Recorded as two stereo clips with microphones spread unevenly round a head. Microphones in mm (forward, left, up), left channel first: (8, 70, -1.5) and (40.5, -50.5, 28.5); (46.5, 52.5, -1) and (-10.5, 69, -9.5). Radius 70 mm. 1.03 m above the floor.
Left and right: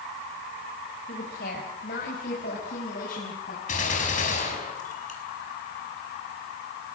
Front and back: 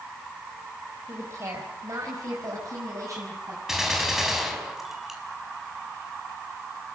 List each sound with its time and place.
1.1 s a woman speaking: 120° left, 4 m; by 3.6 s 130° left, 6.5 m
3.7 s a gunshot: 80° left, 5 m